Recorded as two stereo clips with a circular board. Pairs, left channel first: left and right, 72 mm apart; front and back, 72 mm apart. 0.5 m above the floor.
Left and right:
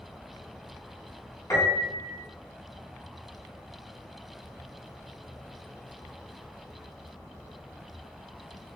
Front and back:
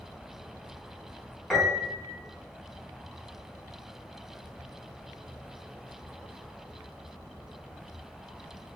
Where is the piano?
80° left, 1.1 m.